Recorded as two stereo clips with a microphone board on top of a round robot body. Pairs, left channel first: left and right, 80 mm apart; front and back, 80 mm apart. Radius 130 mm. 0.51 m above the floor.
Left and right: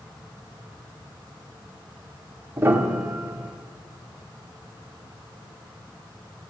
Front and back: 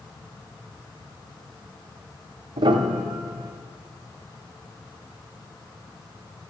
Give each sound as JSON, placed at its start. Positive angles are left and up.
{"t": 2.6, "sound": "a piano", "azimuth_deg": -155, "distance_m": 1.0}